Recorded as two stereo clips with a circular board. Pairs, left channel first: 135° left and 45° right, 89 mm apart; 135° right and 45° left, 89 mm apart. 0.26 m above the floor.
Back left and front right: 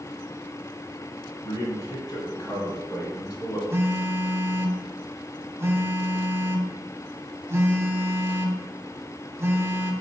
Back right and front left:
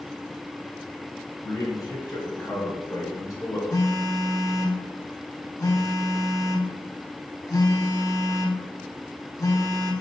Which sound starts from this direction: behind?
A man speaking, at 1.4 s.